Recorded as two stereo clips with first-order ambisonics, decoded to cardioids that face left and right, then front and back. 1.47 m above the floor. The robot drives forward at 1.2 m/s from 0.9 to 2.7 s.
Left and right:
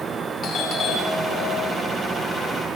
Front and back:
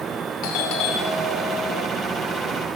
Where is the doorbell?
30° left, 5.5 m; by 1.9 s 35° left, 4.5 m.